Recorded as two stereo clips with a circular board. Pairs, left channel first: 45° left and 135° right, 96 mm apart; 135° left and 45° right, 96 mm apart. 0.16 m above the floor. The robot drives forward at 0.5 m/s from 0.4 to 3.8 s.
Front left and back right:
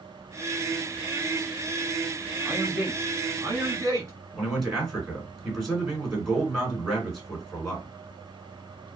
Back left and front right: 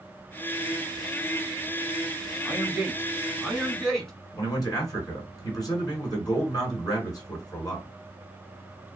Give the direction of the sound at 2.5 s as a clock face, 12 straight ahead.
3 o'clock.